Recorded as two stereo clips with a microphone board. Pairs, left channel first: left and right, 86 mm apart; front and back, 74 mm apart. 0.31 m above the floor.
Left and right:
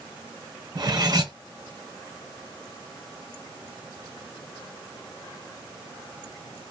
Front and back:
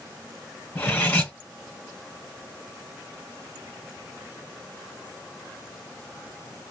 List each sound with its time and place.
0.8 s cutlery clinking: 60° right, 1.2 m